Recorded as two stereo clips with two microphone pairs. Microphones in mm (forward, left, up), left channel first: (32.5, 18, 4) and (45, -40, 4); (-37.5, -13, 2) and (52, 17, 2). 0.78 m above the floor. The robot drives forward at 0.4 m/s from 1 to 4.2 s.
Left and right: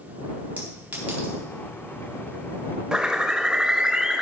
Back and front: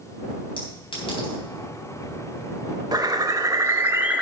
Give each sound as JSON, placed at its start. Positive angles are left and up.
{"t": 0.6, "sound": "a clink", "azimuth_deg": -135, "distance_m": 3.5}
{"t": 2.9, "sound": "a bird", "azimuth_deg": -5, "distance_m": 1.0}